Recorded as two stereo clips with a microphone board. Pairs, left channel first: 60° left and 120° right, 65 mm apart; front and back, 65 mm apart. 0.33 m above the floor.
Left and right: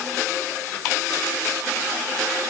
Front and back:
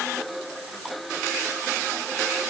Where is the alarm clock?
I don't hear an alarm clock.